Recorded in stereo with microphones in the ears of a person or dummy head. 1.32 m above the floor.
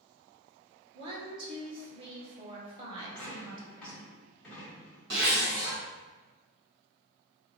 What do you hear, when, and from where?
0.9 s a woman speaking: 25° right (ahead or behind), 1.1 m
3.0 s a dropped coin: 5° left (ahead or behind), 1.3 m
5.1 s a zipper: 65° right (ahead or behind), 1.3 m